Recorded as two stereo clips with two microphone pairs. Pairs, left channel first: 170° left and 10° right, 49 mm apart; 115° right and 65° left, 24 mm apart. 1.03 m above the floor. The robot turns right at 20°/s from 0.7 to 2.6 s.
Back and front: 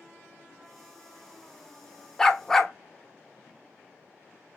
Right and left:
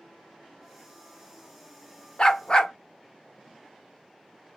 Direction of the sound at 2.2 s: 120° right.